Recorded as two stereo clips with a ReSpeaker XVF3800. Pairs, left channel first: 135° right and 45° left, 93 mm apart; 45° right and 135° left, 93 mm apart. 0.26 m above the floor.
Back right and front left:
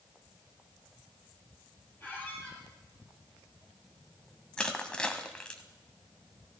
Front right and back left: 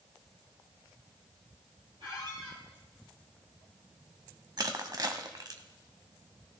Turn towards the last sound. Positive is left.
turn(degrees=150)